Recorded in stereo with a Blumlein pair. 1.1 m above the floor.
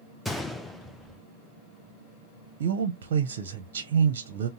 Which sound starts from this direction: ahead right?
A man speaking, at 2.6 s.